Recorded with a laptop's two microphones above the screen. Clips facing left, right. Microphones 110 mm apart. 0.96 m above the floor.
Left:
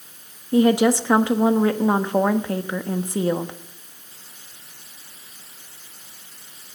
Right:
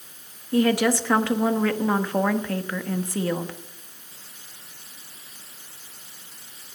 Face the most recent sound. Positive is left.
turn(degrees=20)  # may be behind; listen again after turning